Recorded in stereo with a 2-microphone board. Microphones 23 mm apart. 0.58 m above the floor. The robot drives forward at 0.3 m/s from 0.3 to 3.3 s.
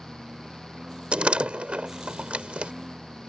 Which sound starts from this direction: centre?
A lawn mower, at 0.0 s.